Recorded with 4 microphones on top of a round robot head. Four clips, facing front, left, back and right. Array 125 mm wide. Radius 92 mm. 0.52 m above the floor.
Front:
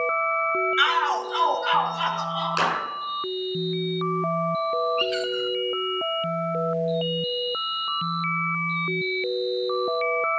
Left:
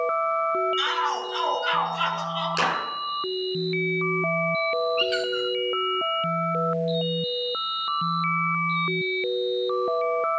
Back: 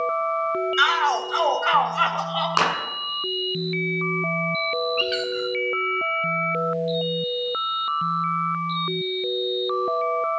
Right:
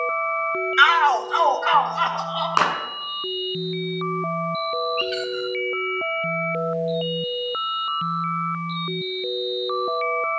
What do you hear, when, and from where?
0.8 s a shout: 105° right, 2.5 m; by 2.5 s 155° right, 2.5 m
2.6 s a clap: 125° right, 7 m
5.0 s a squeak: 160° left, 5 m